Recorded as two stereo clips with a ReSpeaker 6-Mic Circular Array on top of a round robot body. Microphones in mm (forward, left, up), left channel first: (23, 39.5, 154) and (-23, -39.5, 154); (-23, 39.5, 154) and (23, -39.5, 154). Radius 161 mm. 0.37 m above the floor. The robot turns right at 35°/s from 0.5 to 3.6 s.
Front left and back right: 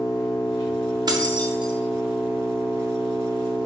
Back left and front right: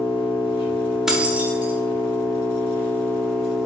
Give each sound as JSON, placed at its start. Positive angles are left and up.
{"t": 0.0, "sound": "an engine running", "azimuth_deg": 105, "distance_m": 1.5}
{"t": 1.1, "sound": "keys jangling", "azimuth_deg": -145, "distance_m": 0.8}